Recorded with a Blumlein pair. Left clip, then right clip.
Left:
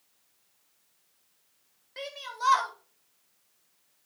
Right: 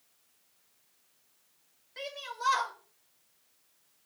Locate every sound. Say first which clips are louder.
2.0 s a shout: left 3 dB; 15° left, 2.5 m